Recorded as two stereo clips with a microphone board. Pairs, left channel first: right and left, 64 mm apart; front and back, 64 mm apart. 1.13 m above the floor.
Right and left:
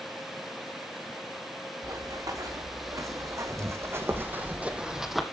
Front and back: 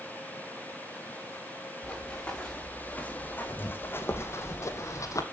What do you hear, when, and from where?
1.8 s running footsteps: 75° left, 4.5 m; by 5.2 s straight ahead, 2.0 m